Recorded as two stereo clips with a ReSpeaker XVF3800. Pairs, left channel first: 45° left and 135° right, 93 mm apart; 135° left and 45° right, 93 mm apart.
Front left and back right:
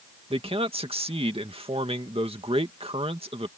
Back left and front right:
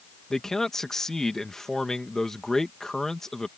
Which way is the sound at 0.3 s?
140° right.